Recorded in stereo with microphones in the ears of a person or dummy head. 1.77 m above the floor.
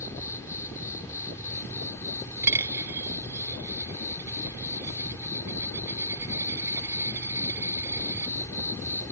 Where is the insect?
10° left (ahead or behind).